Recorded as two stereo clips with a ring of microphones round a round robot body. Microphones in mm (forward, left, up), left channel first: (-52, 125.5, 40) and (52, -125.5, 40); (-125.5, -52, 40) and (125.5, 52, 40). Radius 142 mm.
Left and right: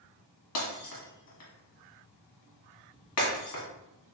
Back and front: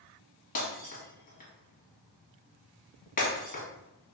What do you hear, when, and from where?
0.6 s breaking glass: 145° left, 1.5 m